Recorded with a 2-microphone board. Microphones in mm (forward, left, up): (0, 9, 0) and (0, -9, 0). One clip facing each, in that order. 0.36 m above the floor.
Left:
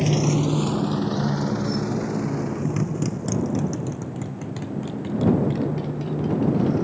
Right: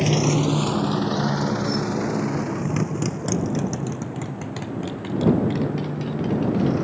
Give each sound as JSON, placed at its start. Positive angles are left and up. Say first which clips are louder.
{"t": 0.0, "sound": "a motorcycle", "louder": "right 1 dB", "side_deg": -15}